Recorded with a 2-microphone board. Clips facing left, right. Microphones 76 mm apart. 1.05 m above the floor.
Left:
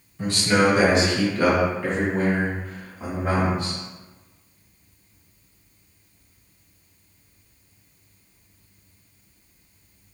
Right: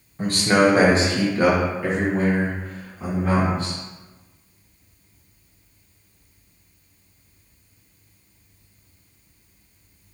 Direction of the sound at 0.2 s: 45° right (ahead or behind).